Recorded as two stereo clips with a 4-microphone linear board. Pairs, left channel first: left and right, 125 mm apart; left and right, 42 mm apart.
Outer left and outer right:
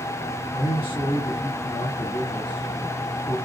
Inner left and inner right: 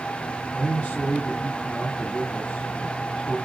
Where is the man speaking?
40° left (ahead or behind), 2.0 m.